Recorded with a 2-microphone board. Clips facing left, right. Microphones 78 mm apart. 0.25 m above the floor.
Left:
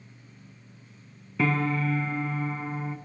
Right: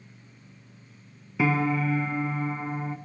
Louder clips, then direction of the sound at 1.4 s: Right 2 dB; 5° right (ahead or behind).